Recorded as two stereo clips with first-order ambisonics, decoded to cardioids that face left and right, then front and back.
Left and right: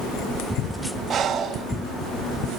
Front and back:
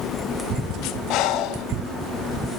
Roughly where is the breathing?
Ahead right.